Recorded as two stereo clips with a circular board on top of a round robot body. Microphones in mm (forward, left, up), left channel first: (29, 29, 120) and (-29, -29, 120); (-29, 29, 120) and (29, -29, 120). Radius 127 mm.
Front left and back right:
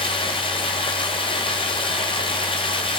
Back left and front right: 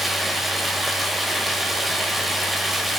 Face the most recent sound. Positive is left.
turn(degrees=45)